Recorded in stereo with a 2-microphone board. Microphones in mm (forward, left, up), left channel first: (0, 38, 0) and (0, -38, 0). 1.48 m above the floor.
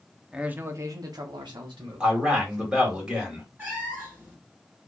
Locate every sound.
0.3 s a man speaking: 10° right (ahead or behind), 0.5 m; by 3.0 s 80° right, 1.4 m
2.0 s a man speaking: 15° right (ahead or behind), 1.3 m
3.6 s a cat meowing: 25° right (ahead or behind), 1.2 m